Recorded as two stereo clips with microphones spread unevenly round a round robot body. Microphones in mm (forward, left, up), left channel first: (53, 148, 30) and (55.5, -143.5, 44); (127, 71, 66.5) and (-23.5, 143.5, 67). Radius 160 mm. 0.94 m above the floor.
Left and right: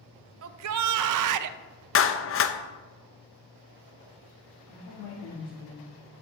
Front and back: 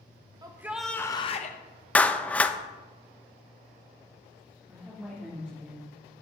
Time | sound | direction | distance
0.4 | a shout | 135° right | 0.8 m
1.9 | a clap | 55° left | 1.0 m
4.7 | a woman speaking | 70° left | 3 m